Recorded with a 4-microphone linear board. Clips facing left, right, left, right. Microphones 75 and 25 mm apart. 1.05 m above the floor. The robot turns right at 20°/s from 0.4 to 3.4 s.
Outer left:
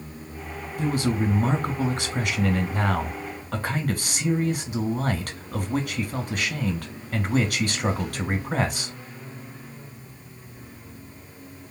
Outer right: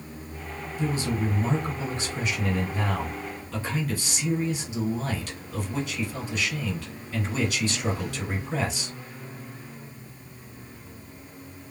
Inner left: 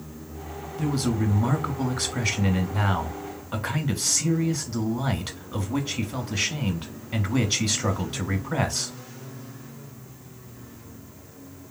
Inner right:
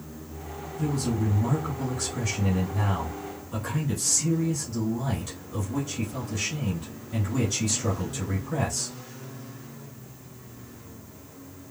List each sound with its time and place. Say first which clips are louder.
0.8 s a man speaking: outer left 3 dB, inner left 2 dB; 65° left, 1.0 m; by 8.9 s 115° left, 1.0 m